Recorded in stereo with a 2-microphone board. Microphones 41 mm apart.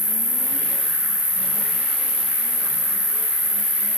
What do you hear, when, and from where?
0.0 s an insect: 60° left (ahead or behind), 9 m